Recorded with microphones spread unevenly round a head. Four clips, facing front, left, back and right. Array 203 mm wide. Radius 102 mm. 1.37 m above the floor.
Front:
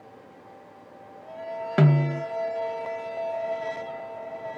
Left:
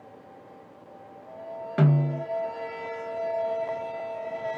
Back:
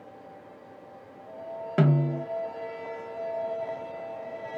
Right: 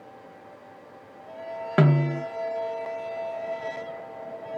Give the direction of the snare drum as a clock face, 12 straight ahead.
2 o'clock.